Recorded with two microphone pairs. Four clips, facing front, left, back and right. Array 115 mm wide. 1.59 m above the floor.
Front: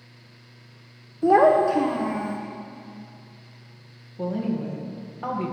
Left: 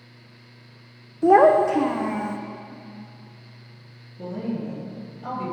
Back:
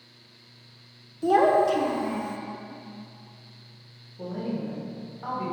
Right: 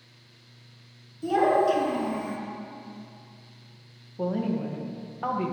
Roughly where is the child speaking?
Ahead left.